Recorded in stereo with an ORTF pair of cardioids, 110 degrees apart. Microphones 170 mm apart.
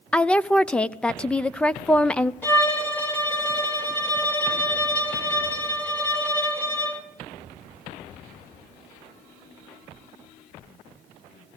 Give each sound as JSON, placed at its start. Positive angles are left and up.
{"t": 0.1, "sound": "a woman speaking", "azimuth_deg": 5, "distance_m": 0.5}
{"t": 2.4, "sound": "a violin", "azimuth_deg": 10, "distance_m": 3.0}